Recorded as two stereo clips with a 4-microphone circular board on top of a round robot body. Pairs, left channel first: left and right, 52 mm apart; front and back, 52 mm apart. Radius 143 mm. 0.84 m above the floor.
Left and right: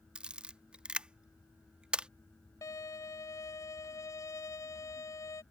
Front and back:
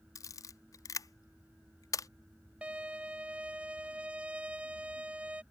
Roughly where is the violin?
Behind left.